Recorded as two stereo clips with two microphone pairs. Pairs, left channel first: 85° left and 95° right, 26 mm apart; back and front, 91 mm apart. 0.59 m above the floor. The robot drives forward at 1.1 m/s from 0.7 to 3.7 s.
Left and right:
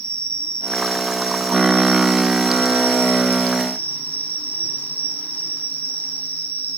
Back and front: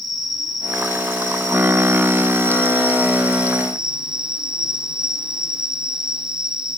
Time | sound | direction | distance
0.0 | an insect | 40° left | 5.5 m